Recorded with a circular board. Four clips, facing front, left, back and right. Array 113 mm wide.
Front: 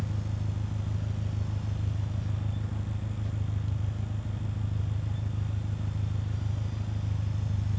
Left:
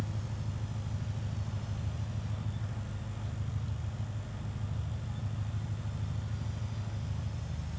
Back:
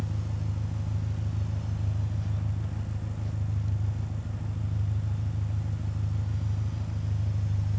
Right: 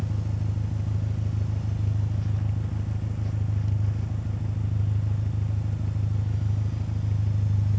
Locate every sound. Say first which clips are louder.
0.0 s an engine running: right 7 dB, even; 85° right, 0.9 m